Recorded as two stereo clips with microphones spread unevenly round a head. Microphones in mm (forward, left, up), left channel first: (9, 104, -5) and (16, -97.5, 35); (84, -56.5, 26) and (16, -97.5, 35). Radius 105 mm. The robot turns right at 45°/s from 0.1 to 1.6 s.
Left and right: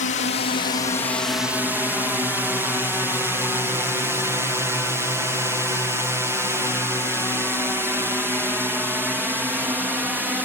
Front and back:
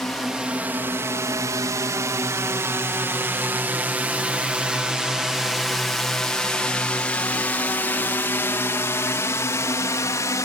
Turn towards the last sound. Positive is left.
turn(degrees=0)